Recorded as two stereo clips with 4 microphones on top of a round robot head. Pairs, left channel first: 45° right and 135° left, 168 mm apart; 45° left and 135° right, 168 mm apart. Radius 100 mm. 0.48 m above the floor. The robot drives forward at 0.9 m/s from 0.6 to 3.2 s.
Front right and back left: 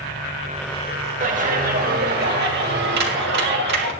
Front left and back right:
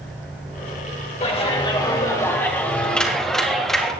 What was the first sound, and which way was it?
A clap, 95° left.